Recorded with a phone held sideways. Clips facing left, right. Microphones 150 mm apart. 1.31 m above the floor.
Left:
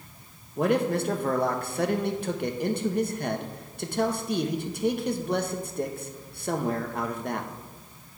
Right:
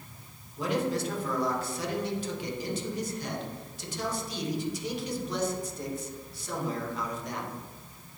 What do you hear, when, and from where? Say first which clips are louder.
0.6 s a man speaking: left 5 dB; 60° left (ahead or behind), 0.9 m